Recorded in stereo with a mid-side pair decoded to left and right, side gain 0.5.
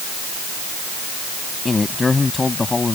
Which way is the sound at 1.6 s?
25° left.